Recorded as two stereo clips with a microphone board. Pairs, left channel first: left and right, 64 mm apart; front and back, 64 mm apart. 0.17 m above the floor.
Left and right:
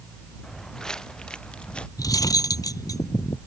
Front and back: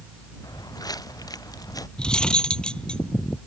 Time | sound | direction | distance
0.4 | footsteps | 5° left | ?
2.0 | cutlery clinking | 75° left | ?